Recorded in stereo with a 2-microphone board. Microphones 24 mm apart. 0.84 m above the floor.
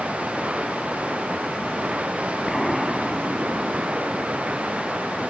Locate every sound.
0.0 s running water: 60° right (ahead or behind)
2.5 s an explosion: 10° right (ahead or behind)